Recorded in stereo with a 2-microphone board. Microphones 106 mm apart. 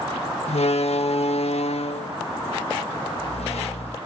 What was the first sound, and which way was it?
A door slam, 75° left (ahead or behind).